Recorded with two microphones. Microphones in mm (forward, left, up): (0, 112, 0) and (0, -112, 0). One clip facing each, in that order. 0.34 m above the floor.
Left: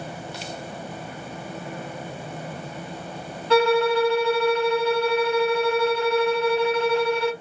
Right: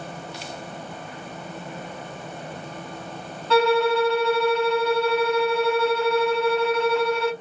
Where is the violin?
10° left (ahead or behind), 1.4 m.